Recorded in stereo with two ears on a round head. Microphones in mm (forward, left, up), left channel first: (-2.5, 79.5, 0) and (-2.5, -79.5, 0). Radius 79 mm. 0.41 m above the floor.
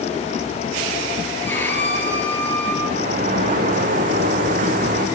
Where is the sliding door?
45° right (ahead or behind), 4 m.